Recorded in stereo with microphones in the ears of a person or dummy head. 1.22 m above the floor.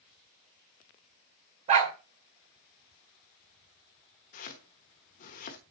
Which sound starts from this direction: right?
A dog barking, at 1.7 s.